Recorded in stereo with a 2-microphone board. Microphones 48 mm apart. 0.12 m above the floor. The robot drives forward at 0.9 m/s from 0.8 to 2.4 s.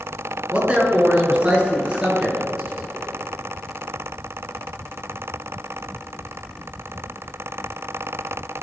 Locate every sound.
0.5 s a man speaking: 25° right (ahead or behind), 1.6 m; by 3.1 s 15° right (ahead or behind), 2.5 m